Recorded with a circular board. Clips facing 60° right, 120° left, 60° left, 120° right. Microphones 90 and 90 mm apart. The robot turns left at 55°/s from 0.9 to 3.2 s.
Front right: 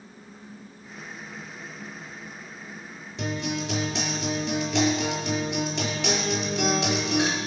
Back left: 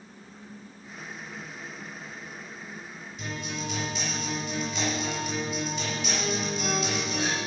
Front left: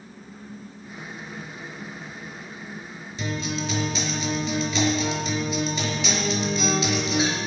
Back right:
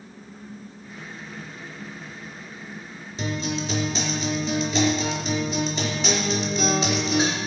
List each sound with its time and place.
3.2 s a guitar: 65° right, 4.5 m